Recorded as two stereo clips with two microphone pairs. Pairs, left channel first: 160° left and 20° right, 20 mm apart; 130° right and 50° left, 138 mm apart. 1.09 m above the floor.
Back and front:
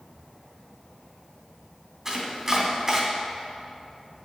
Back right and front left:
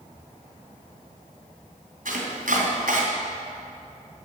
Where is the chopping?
45° left, 3 m.